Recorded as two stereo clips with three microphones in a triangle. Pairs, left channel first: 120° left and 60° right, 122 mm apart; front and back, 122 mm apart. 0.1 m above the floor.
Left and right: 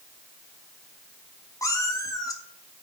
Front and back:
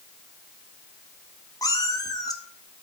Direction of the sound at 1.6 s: 60° left.